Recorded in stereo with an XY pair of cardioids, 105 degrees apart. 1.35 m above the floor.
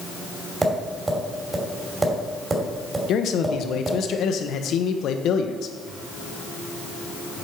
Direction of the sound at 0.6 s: 25° right.